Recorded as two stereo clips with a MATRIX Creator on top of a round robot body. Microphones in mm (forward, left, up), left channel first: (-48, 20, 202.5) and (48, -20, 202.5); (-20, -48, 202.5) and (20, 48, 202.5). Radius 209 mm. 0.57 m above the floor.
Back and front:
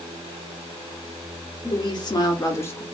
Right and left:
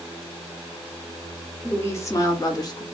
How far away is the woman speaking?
About 1.5 m.